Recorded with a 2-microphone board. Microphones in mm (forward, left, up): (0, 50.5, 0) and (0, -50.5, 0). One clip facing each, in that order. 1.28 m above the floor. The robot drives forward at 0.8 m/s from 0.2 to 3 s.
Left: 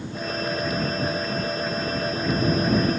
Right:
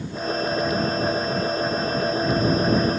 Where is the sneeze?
I don't hear a sneeze.